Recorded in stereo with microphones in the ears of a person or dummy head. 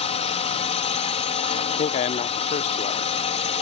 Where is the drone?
35° left (ahead or behind).